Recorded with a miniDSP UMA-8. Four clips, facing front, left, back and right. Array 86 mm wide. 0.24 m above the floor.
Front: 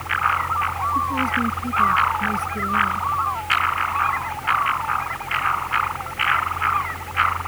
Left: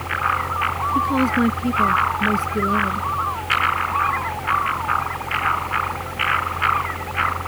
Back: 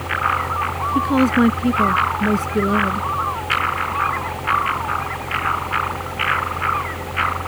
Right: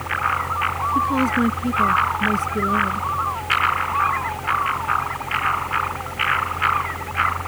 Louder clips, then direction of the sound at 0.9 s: Left 1 dB, back 10 dB; 170° left.